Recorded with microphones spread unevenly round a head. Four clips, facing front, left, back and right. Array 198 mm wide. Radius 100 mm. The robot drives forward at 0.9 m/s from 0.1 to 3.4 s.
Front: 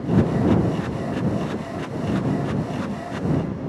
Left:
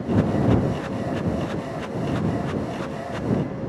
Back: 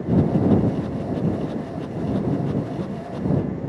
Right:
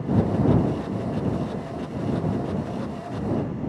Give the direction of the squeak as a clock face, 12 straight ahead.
No squeak in this recording.